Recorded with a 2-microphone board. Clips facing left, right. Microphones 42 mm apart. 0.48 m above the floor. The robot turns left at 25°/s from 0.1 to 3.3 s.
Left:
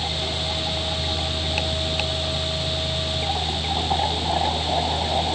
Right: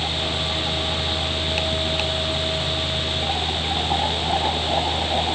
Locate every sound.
Only background noise.